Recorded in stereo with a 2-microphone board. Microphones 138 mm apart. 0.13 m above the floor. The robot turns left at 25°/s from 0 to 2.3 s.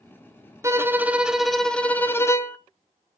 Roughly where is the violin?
Behind.